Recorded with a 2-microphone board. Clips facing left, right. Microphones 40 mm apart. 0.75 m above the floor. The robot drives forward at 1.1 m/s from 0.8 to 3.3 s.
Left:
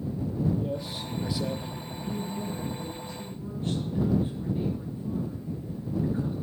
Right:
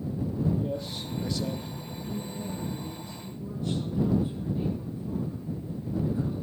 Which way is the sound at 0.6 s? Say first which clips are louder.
Even; 5° left (ahead or behind).